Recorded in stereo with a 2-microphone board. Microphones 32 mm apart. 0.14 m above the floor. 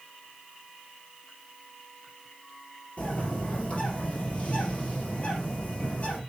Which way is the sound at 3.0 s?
45° left (ahead or behind).